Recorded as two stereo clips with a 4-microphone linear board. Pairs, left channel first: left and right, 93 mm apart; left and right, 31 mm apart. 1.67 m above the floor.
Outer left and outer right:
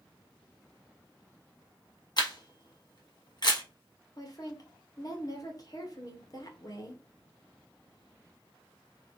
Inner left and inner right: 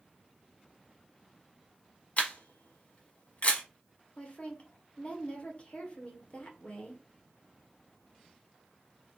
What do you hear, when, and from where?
2.2 s a camera shutter: 50° left (ahead or behind), 1.3 m
4.2 s a woman speaking: 40° left (ahead or behind), 1.3 m